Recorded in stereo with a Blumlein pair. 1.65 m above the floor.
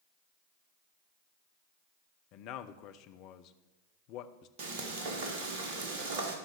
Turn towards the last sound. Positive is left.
turn(degrees=-50)